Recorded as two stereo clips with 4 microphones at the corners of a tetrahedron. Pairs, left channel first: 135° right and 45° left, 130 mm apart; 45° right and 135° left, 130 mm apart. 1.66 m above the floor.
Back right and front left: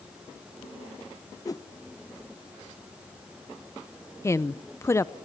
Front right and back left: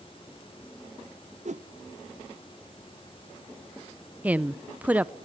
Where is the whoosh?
165° left, 0.7 m.